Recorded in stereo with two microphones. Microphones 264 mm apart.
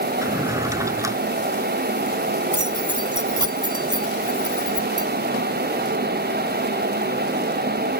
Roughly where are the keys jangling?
Centre.